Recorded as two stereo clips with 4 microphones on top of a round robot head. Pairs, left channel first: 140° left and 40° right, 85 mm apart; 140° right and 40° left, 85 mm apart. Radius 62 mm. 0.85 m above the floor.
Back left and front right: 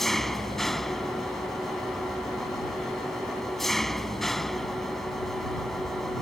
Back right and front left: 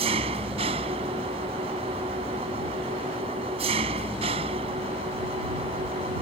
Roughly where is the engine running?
Ahead left.